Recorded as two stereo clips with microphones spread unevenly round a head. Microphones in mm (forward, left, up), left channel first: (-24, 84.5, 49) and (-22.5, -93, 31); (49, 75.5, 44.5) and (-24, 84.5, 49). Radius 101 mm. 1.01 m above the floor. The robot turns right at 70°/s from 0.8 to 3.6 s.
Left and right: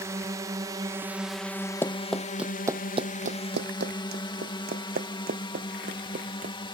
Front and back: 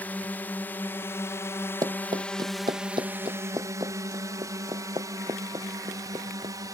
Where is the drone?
45° right; by 6.8 s 150° left.